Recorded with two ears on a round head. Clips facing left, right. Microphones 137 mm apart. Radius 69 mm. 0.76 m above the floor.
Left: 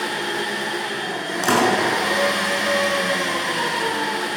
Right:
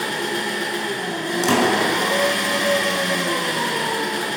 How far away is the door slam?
About 6 m.